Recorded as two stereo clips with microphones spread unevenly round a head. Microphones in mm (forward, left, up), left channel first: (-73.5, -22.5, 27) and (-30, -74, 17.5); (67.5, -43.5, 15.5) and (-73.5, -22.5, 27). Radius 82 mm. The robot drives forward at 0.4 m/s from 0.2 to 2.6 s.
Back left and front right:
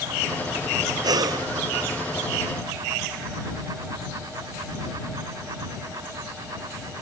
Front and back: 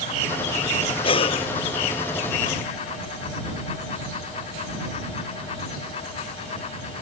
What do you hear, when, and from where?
1.0 s breathing: 60° right